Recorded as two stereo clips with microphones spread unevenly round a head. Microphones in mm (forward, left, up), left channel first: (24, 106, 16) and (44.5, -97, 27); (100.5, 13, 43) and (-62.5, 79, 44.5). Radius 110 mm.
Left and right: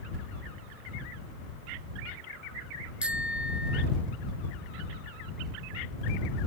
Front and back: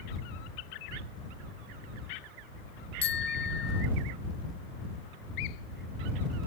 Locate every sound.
3.0 s a bicycle bell: straight ahead